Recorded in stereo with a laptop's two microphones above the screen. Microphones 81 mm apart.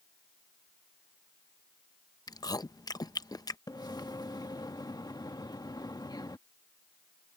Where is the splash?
55° left (ahead or behind).